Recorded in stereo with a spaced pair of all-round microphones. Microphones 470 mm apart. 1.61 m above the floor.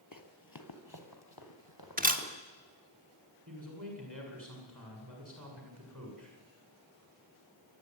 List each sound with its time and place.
0.1 s running footsteps: 40° left (ahead or behind), 2.0 m; by 2.3 s 50° left (ahead or behind), 4.5 m
2.0 s a camera shutter: 20° right (ahead or behind), 1.5 m
3.5 s a man speaking: 40° right (ahead or behind), 8 m